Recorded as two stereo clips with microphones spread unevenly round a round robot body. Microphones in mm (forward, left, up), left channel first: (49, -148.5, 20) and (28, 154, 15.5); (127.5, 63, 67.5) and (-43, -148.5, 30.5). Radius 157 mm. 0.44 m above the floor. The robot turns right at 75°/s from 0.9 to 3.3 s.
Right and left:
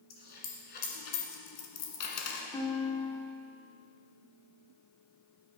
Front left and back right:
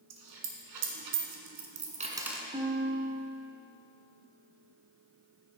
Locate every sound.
0.1 s a dropped coin: 145° right, 1.6 m; by 2.4 s 30° right, 1.6 m
2.5 s a guitar: 150° right, 1.5 m; by 3.5 s 90° right, 1.5 m